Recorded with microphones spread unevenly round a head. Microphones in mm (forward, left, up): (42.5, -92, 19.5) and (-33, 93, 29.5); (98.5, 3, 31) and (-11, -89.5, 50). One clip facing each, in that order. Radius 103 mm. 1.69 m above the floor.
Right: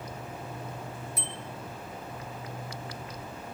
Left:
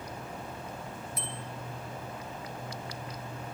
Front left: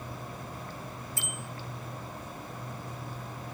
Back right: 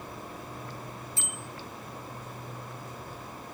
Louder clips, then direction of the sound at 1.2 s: Right 1 dB, front left 1 dB; 80° right.